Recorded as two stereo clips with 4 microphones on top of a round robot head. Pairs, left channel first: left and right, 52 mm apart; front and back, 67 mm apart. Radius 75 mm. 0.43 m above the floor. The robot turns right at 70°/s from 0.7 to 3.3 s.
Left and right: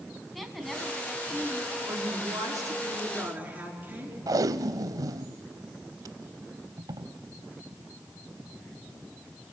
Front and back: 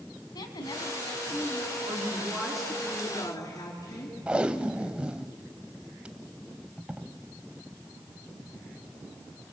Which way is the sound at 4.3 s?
100° right.